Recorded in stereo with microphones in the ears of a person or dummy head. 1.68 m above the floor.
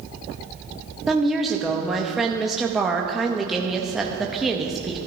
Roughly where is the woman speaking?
Centre.